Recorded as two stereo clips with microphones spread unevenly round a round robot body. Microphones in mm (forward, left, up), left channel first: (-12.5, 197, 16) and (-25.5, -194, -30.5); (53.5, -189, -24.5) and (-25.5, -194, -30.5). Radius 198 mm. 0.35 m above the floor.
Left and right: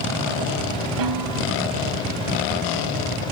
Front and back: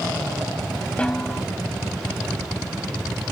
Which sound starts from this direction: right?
A snare drum, at 1.0 s.